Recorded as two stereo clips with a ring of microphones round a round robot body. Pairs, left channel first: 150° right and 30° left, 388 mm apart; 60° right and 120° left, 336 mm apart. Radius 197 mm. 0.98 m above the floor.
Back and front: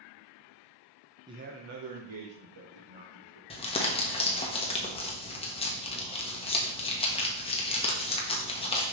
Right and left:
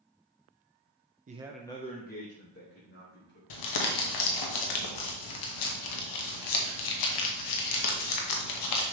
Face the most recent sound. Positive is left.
turn(degrees=-75)